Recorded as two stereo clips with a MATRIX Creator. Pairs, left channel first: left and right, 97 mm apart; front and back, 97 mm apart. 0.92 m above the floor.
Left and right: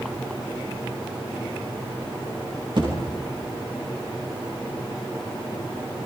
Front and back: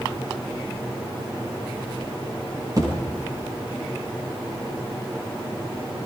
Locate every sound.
2.8 s a thud: 130° right, 6.5 m